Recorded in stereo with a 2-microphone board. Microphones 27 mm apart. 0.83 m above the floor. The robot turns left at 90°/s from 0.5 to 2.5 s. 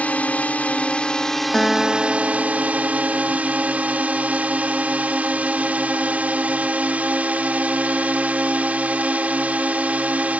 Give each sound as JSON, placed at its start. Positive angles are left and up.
{"t": 0.0, "sound": "a drone", "azimuth_deg": 90}
{"t": 1.5, "sound": "a guitar", "azimuth_deg": 30}